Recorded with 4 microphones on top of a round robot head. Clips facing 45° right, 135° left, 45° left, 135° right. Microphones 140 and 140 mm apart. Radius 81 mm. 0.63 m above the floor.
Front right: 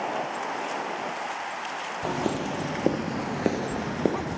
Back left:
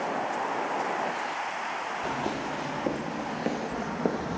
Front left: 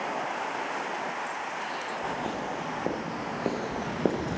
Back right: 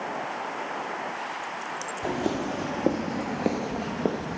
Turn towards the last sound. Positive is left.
turn(degrees=25)